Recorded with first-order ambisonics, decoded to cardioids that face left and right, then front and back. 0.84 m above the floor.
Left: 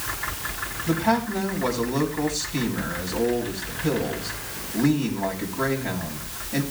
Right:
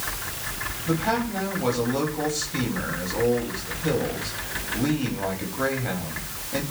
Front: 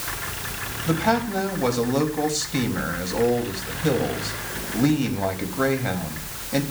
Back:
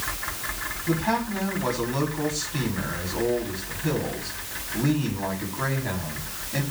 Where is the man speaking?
5° right, 5.5 m.